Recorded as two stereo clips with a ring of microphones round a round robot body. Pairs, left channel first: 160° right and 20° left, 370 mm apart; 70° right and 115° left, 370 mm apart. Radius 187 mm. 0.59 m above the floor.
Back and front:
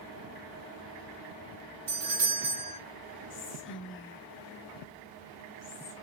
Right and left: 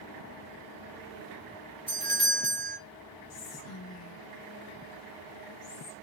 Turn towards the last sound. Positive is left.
turn(degrees=-105)